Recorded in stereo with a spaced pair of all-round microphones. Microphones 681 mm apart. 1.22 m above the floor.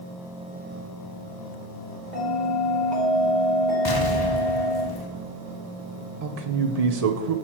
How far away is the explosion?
About 0.8 m.